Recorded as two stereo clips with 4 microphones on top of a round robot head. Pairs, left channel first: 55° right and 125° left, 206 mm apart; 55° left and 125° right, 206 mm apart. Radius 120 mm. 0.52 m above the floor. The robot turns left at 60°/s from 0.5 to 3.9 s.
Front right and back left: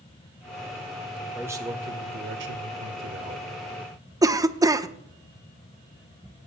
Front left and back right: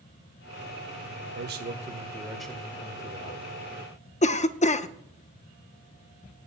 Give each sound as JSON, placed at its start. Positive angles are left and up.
{"t": 1.4, "sound": "a man speaking", "azimuth_deg": -150, "distance_m": 1.6}
{"t": 4.2, "sound": "a cough", "azimuth_deg": 65, "distance_m": 0.8}